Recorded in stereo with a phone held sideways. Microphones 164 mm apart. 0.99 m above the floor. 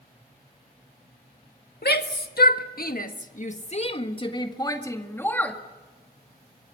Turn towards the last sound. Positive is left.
turn(degrees=10)  # may be behind; listen again after turning